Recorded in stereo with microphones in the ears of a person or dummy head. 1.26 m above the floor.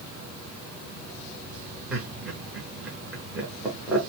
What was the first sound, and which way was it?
Laughter, 5° right (ahead or behind).